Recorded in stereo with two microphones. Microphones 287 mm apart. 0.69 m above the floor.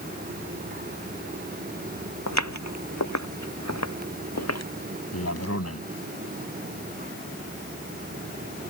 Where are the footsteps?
70° left (ahead or behind); by 4.7 s 60° left (ahead or behind).